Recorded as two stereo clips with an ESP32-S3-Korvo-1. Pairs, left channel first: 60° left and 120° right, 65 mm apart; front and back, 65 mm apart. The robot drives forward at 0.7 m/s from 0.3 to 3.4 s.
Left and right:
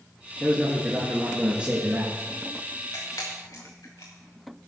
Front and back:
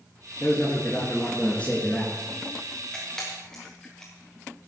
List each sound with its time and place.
0.4 s a man speaking: 40° right, 2.5 m; by 2.1 s 70° right, 2 m
2.9 s a camera shutter: 75° left, 4 m; by 4.7 s 80° left, 4 m